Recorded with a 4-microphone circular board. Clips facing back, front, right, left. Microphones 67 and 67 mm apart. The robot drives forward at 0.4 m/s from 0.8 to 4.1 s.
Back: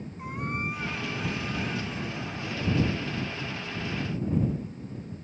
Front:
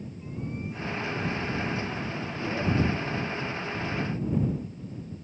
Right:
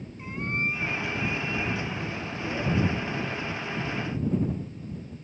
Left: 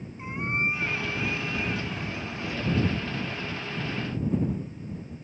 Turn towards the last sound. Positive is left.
turn(degrees=165)